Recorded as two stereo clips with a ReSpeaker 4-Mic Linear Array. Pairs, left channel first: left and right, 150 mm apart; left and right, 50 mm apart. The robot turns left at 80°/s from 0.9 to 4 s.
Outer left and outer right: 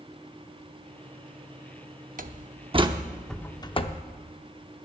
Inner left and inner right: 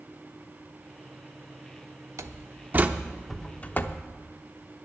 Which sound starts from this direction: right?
A door slam, at 2.2 s.